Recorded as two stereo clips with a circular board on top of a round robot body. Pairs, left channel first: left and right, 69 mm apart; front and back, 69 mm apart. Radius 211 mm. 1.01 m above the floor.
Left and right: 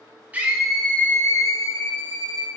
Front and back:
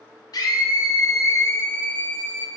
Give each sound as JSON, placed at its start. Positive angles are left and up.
{"t": 0.3, "sound": "a scream", "azimuth_deg": -20, "distance_m": 0.7}